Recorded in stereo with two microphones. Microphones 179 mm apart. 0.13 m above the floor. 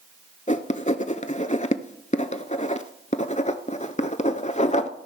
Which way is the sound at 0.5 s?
40° left (ahead or behind).